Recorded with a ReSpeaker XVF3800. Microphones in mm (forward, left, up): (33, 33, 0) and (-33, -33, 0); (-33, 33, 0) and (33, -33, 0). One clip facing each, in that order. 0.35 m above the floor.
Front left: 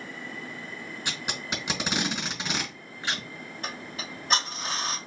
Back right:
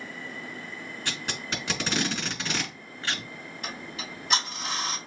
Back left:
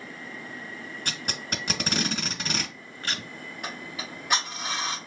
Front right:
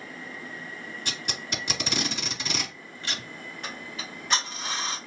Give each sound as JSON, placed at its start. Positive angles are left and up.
{"t": 1.1, "sound": "tape being pulled", "azimuth_deg": 115, "distance_m": 1.7}
{"t": 3.6, "sound": "ticking", "azimuth_deg": 65, "distance_m": 1.9}